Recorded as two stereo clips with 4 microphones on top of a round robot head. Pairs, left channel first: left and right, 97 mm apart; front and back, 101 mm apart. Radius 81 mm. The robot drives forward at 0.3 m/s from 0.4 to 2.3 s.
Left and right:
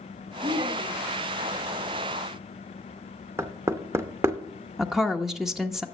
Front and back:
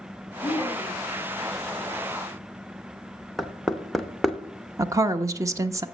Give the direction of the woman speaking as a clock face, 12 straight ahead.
6 o'clock.